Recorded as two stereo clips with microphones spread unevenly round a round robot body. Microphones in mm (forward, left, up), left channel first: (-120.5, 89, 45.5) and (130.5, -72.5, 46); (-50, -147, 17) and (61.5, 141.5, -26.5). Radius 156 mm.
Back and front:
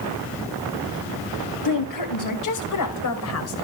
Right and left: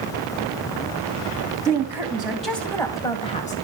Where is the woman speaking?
145° left, 4 m; by 3.6 s 175° right, 2.5 m.